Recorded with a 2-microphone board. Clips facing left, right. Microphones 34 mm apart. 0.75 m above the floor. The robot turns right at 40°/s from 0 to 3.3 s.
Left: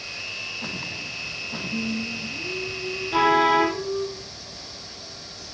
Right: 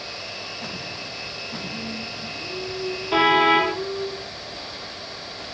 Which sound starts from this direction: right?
A car horn, at 3.1 s.